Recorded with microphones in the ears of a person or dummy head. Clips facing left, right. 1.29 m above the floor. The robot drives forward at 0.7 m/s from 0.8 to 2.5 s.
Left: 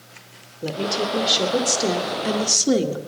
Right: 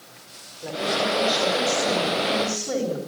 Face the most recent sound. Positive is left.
turn(degrees=55)  # may be behind; listen again after turning